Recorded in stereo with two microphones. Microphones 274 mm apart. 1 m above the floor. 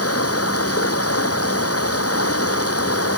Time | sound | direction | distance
0.0 | running water | 60° left (ahead or behind) | ?